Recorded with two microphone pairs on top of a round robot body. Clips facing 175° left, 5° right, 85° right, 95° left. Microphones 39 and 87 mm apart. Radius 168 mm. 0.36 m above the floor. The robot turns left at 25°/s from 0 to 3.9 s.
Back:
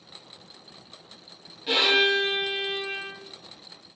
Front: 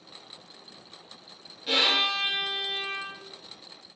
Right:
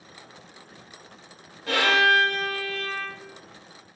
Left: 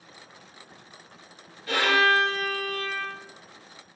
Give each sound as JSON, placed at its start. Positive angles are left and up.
{"t": 1.7, "sound": "a violin", "azimuth_deg": -105, "distance_m": 1.0}